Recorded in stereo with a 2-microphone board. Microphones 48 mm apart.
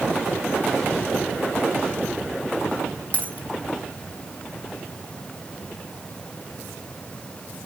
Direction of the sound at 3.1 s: 30° left (ahead or behind).